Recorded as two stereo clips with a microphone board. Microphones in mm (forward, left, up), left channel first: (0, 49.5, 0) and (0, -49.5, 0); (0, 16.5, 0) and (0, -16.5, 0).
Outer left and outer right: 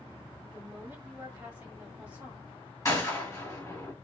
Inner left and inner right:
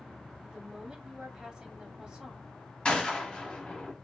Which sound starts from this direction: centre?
A woman speaking, at 0.4 s.